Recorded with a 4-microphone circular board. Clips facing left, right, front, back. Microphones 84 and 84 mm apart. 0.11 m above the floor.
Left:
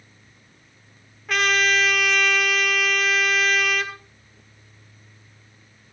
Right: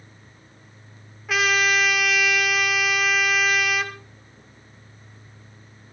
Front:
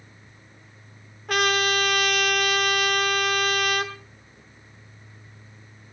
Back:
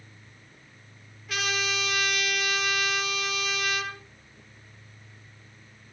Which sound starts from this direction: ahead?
A trumpet, at 1.3 s.